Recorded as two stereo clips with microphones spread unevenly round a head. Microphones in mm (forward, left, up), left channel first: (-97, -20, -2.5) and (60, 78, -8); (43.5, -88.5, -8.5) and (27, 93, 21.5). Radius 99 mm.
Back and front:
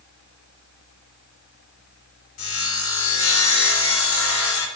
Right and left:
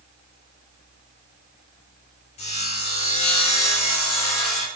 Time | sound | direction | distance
2.4 | sawing | 145° right | 3.5 m